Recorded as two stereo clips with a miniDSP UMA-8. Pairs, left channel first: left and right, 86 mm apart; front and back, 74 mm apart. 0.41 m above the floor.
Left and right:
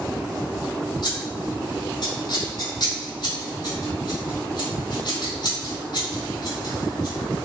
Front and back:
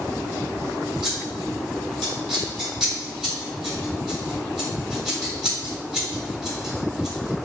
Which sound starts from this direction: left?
Scissors, at 1.0 s.